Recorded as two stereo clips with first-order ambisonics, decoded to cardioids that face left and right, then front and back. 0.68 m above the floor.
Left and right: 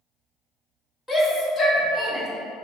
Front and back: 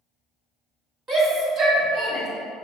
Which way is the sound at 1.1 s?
175° left.